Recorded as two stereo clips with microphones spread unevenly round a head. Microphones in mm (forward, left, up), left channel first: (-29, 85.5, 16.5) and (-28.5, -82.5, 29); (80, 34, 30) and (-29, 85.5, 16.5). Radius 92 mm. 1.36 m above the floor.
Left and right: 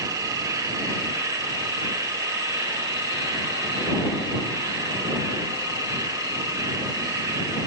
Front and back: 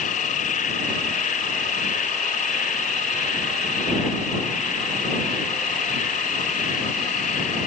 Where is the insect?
15° right.